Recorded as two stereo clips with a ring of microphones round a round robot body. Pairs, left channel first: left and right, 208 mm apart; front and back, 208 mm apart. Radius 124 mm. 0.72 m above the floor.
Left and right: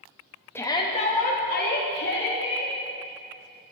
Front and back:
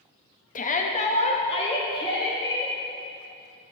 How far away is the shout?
About 1.0 m.